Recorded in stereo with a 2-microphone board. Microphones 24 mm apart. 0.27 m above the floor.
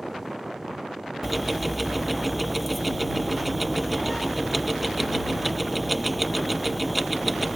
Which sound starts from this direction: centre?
Ticking, at 1.2 s.